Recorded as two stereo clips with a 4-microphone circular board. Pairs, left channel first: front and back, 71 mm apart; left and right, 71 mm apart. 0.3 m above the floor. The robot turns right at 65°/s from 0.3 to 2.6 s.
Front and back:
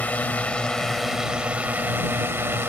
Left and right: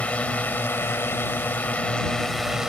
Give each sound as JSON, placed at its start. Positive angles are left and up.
{"t": 0.0, "sound": "a drone", "azimuth_deg": 45}